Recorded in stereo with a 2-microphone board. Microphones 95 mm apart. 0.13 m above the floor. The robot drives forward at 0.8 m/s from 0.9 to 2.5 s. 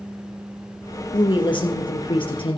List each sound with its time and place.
1.1 s a woman speaking: 60° left (ahead or behind), 3 m; by 2.6 s 65° left (ahead or behind), 3 m